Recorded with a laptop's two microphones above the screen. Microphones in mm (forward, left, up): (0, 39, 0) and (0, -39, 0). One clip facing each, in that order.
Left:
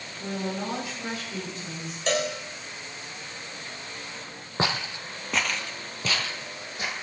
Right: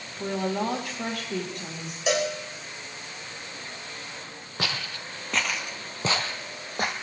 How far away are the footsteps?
About 1.3 m.